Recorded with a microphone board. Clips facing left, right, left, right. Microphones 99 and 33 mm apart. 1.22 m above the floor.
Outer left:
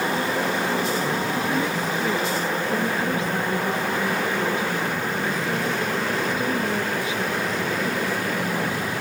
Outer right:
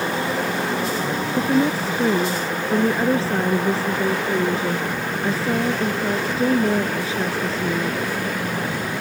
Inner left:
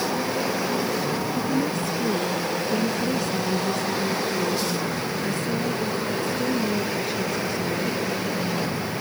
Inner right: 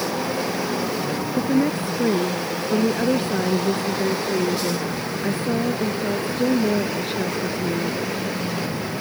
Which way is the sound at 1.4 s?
30° right (ahead or behind).